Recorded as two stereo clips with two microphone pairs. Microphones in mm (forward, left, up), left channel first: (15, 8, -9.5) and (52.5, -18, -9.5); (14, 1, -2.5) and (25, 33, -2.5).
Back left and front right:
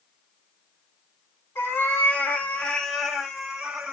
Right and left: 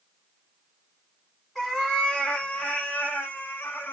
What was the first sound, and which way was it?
A cat meowing, 170° left.